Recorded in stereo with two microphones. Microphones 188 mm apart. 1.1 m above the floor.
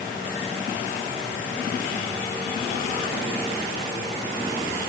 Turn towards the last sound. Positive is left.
No sound to turn to.